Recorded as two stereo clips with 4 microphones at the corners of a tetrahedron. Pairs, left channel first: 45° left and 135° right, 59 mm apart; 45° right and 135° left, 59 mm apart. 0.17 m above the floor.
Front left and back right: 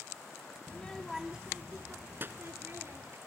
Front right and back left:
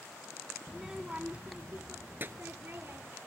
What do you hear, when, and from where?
0.7 s a child speaking: 45° left, 0.6 m; by 3.2 s 175° right, 1.8 m